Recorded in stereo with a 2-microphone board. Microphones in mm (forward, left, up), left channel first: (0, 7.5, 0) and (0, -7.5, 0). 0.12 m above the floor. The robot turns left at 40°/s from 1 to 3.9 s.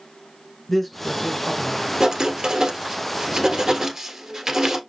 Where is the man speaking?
10° left, 1.2 m; by 1.9 s 25° right, 1.2 m.